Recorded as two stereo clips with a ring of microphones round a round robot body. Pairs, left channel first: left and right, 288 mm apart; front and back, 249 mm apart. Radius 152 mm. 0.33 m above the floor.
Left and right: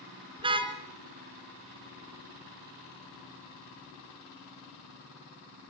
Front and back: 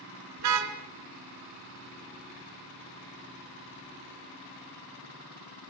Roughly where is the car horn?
Behind.